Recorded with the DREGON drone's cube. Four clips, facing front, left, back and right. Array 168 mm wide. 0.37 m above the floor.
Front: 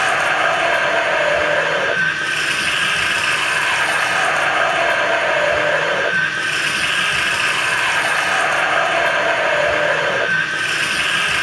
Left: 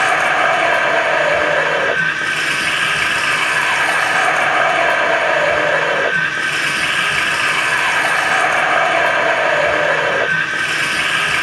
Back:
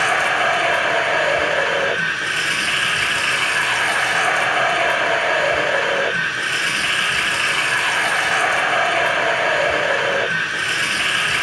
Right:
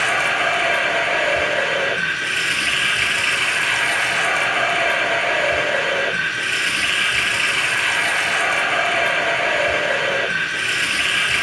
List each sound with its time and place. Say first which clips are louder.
0.0 s running water: left 6 dB, front 1 dB; 75° left, 0.7 m